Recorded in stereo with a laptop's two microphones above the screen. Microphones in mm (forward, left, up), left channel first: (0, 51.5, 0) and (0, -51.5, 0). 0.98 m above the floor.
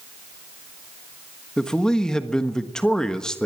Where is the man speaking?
5° left (ahead or behind), 1.3 m.